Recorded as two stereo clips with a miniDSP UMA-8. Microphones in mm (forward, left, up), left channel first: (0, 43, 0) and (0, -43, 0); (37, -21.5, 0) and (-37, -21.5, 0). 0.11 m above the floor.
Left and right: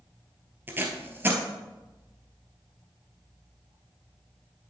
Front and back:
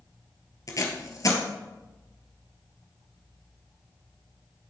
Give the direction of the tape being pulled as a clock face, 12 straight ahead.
1 o'clock.